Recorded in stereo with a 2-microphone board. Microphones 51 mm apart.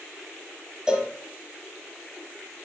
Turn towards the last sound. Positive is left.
turn(degrees=-15)  # may be behind; listen again after turning